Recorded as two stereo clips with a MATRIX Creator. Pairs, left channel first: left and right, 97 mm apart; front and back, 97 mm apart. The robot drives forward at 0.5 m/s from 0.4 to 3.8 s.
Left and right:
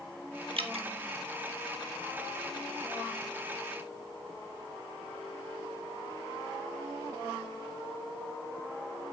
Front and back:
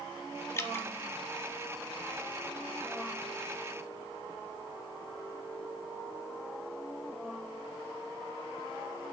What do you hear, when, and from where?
0.6 s dripping: 60° right, 1.2 m; by 0.9 s 70° right, 1.1 m